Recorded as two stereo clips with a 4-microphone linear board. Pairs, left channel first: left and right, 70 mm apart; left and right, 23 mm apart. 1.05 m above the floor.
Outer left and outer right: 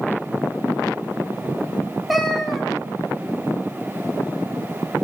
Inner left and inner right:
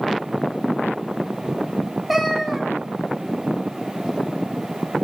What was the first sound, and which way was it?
A cat meowing, centre (ahead or behind).